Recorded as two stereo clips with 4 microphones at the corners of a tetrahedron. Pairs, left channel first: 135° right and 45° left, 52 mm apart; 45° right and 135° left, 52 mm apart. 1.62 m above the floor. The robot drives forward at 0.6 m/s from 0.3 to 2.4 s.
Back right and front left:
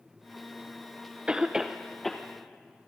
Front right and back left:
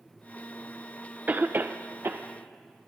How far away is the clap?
No clap in this recording.